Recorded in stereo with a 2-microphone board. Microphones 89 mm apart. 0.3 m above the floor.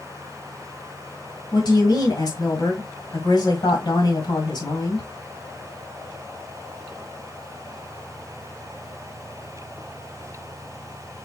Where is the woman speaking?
50° left (ahead or behind), 1.8 m.